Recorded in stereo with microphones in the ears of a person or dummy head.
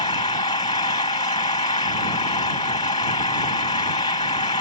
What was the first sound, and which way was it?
An engine running, 25° left (ahead or behind).